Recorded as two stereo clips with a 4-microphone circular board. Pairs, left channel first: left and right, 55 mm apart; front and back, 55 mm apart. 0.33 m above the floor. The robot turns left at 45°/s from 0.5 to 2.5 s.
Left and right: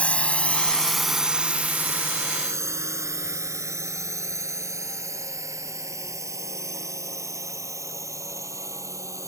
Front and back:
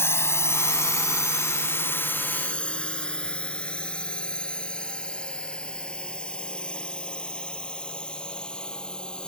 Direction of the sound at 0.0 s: 25° left.